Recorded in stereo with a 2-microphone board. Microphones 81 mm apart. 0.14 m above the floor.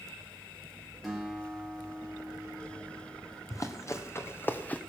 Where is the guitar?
Centre (ahead or behind), 3.5 m.